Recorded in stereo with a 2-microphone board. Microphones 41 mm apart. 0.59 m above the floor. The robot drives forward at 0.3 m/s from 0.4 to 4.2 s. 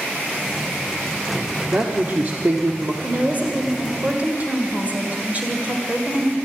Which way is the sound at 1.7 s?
45° right (ahead or behind).